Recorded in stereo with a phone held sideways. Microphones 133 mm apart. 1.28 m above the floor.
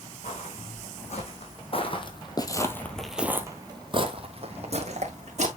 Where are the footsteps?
55° left (ahead or behind), 4 m; by 5.5 s 55° right (ahead or behind), 3 m.